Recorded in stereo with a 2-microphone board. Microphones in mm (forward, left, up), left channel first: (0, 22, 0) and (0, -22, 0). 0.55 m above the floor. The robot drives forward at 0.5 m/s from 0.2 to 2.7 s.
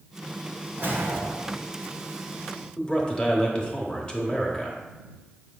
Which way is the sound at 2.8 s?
20° left (ahead or behind).